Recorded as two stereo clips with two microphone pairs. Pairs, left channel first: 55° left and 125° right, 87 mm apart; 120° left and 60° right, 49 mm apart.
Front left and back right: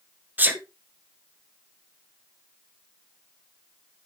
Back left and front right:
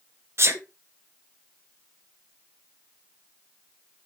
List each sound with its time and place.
0.4 s a sneeze: 55° right, 1.1 m